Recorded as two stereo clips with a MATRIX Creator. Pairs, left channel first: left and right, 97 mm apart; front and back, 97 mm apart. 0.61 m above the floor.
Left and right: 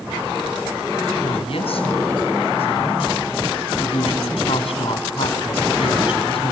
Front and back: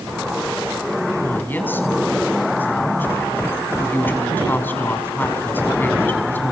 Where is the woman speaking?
70° left, 4.5 m.